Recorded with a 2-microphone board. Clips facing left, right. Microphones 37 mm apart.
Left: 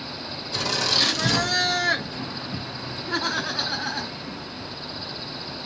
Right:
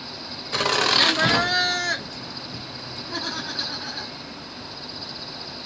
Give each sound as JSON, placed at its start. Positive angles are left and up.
{"t": 0.5, "sound": "laughter", "side_deg": -50, "distance_m": 1.1}